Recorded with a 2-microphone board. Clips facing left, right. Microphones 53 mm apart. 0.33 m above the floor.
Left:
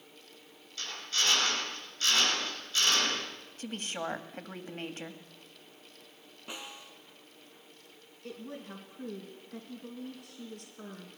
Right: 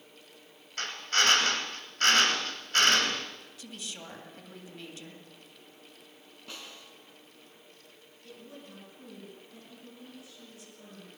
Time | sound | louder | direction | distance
0.8 | a drill | right 6 dB | 60° right (ahead or behind) | 5.5 m
3.6 | a woman speaking | left 9 dB | 45° left (ahead or behind) | 1.8 m
6.5 | a snare drum | left 2 dB | 20° left (ahead or behind) | 2.5 m
8.2 | a woman speaking | left 6 dB | 65° left (ahead or behind) | 4 m